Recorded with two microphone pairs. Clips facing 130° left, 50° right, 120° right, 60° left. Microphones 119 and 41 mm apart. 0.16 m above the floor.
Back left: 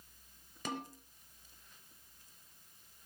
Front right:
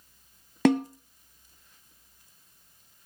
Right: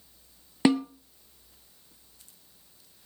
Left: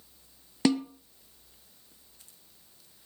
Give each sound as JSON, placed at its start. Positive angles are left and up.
{"t": 0.7, "sound": "a snare drum", "azimuth_deg": -45, "distance_m": 0.9}